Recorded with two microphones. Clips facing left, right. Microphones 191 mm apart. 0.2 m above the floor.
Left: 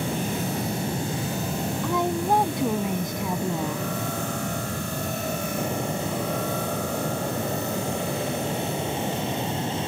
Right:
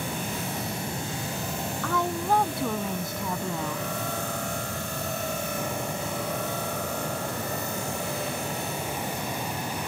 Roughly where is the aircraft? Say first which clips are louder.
Left 5 dB; left.